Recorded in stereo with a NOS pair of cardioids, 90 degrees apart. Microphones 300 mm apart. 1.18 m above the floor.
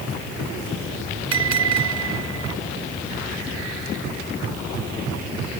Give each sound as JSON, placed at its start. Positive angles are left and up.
{"t": 1.3, "sound": "a bell", "azimuth_deg": -60}